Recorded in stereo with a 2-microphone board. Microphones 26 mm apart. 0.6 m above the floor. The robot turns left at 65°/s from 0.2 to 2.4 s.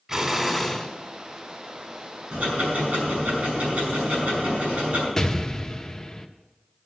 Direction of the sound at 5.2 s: 20° left (ahead or behind).